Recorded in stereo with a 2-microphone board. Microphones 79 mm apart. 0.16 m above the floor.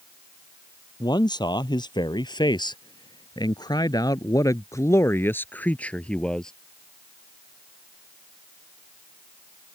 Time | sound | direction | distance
1.0 | a man speaking | 60° left (ahead or behind) | ?